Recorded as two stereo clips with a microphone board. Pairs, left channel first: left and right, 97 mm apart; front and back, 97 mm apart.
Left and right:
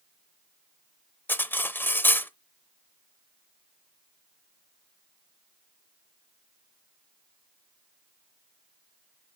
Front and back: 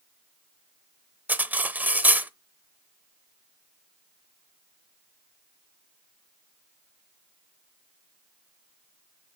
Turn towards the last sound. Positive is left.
turn(degrees=130)